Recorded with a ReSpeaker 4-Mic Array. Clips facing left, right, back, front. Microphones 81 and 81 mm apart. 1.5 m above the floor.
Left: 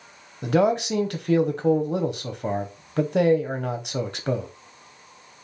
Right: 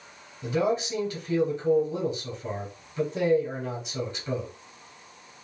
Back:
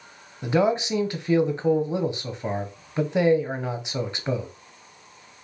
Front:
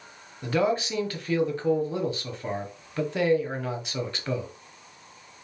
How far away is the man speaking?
About 0.8 m.